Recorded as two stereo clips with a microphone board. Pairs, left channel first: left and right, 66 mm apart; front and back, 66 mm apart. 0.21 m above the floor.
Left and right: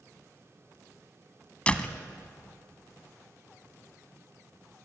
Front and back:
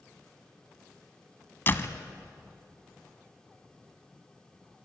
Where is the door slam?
30° left, 1.3 m.